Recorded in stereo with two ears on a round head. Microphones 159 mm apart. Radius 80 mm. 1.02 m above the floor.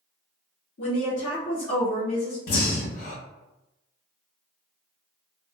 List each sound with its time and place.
0.8 s a woman speaking: 75° left (ahead or behind), 1.3 m
2.5 s breathing: 55° left (ahead or behind), 0.9 m